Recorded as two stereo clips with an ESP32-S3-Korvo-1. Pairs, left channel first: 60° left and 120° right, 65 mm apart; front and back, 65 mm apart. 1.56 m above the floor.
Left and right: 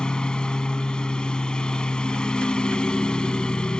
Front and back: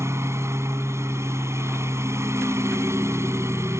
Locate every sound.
0.0 s a lawn mower: 135° left